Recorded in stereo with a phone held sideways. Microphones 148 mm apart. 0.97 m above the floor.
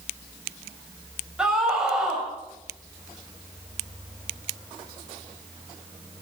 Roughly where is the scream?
Centre.